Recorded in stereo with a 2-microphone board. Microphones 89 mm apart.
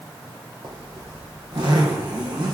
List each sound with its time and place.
0.6 s a zipper: 60° right (ahead or behind), 4 m